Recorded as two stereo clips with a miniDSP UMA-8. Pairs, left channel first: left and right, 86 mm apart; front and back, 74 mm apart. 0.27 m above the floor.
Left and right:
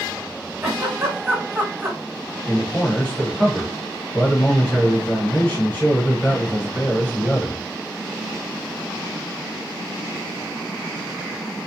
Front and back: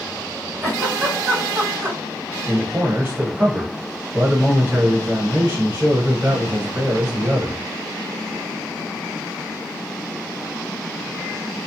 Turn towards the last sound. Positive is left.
turn(degrees=145)